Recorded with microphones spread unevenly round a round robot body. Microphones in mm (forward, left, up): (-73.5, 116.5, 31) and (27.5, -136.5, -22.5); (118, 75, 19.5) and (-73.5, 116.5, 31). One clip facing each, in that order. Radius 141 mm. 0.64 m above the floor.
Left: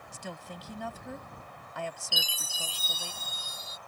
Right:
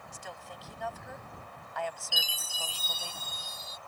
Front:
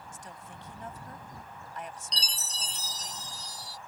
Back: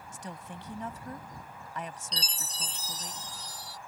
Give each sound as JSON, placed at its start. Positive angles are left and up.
{"t": 0.1, "sound": "a woman speaking", "azimuth_deg": 160}
{"t": 2.1, "sound": "a chime", "azimuth_deg": 135}